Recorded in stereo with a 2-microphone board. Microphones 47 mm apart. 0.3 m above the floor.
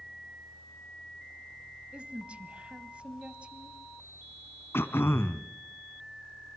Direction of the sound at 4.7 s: 65° left (ahead or behind).